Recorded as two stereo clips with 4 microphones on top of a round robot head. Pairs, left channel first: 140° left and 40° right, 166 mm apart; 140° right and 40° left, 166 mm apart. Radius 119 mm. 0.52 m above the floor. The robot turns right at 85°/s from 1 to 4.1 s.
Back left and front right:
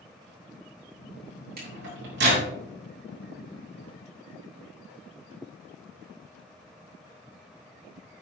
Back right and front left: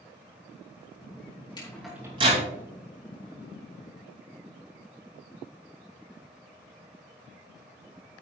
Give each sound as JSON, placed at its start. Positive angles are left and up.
{"t": 1.6, "sound": "a microwave", "azimuth_deg": -75, "distance_m": 3.5}